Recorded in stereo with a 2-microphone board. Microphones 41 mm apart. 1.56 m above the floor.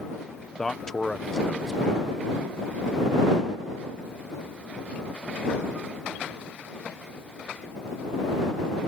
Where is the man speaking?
5° left (ahead or behind).